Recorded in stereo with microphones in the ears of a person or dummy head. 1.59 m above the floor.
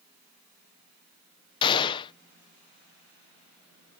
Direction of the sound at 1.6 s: 25° left (ahead or behind).